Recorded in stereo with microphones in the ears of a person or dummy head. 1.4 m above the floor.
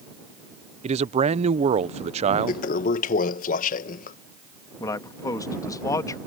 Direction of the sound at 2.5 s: 50° left (ahead or behind).